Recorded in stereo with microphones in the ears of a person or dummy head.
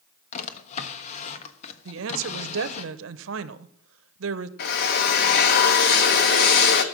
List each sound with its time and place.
0.3 s a drawer: 40° left (ahead or behind), 1.2 m
1.9 s a woman speaking: 75° right (ahead or behind), 1.0 m
4.6 s a drill: 55° left (ahead or behind), 1.2 m